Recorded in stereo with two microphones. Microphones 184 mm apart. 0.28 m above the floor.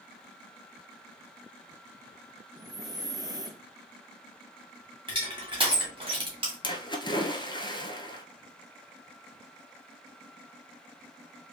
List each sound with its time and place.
2.5 s breathing: 20° right (ahead or behind), 0.5 m
5.1 s crushing: 30° right (ahead or behind), 1.7 m
6.6 s a splash: 25° left (ahead or behind), 0.7 m